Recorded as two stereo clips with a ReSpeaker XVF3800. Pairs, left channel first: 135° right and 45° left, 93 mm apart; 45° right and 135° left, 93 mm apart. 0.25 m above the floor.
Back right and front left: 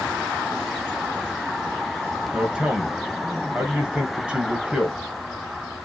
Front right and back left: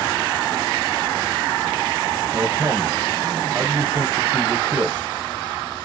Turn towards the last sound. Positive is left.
turn(degrees=110)